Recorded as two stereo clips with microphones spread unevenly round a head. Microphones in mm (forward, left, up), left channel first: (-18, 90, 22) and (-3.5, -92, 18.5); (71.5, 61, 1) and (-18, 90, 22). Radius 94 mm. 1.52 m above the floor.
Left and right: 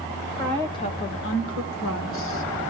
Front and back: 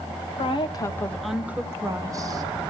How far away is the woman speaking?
About 1.3 m.